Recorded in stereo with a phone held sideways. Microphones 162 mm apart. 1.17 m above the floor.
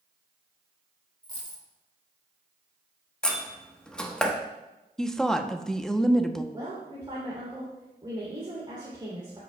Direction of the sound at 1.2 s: 30° left (ahead or behind).